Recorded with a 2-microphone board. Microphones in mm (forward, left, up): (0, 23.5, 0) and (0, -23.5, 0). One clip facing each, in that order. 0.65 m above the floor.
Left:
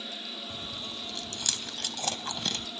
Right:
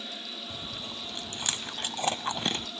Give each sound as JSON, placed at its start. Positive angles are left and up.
{"t": 0.5, "sound": "chewing", "side_deg": -25, "distance_m": 0.6}